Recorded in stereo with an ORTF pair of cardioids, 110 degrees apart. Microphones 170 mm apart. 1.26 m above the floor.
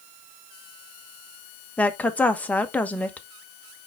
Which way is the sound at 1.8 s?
10° left.